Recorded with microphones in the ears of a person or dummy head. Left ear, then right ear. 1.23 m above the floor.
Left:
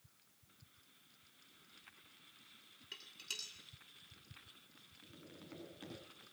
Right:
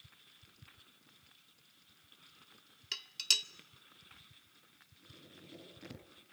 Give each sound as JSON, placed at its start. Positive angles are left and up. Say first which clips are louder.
{"t": 2.9, "sound": "dishes clattering", "louder": "right 14 dB", "side_deg": -65, "distance_m": 1.6}
{"t": 5.0, "sound": "tapping", "louder": "right 2 dB", "side_deg": 30, "distance_m": 8.0}